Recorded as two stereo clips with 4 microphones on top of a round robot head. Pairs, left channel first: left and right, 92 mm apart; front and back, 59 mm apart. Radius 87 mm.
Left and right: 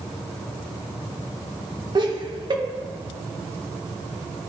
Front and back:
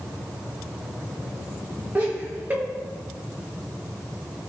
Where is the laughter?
120° right, 1.8 m.